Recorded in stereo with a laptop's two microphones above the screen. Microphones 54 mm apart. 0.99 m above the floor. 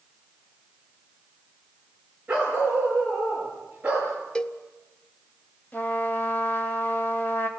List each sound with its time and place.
2.3 s a dog barking: 20° right (ahead or behind), 5.5 m; by 4.1 s 25° right (ahead or behind), 6 m
4.3 s a cowbell: 15° left (ahead or behind), 0.6 m
5.7 s a trumpet: 35° left (ahead or behind), 2 m